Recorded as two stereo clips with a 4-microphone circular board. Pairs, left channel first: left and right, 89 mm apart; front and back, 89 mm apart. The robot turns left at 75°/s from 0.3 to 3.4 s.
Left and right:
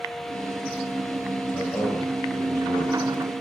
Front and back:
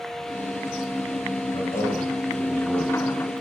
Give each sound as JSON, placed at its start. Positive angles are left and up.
{"t": 1.5, "sound": "a man speaking", "azimuth_deg": 15, "distance_m": 5.0}